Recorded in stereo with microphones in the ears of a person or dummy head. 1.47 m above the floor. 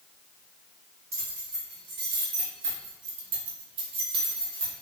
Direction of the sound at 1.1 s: 35° right (ahead or behind).